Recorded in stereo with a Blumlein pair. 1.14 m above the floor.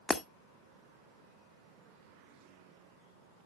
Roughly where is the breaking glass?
Ahead.